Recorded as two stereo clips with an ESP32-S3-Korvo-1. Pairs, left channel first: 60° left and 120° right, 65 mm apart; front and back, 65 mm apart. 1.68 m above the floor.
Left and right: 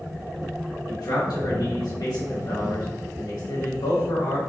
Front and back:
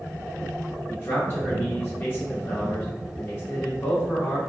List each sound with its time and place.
0.9 s a man speaking: 55° left, 2.0 m